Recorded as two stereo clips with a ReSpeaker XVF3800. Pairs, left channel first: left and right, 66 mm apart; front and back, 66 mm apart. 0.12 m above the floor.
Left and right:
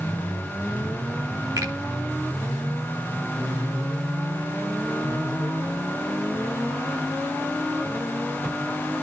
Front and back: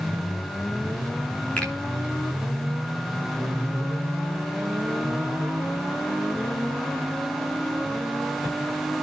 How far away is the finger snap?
About 9.5 m.